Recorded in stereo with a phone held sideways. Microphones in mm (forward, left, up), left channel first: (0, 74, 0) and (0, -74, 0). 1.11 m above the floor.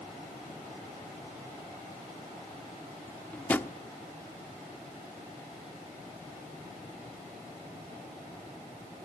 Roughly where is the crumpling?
I don't hear crumpling.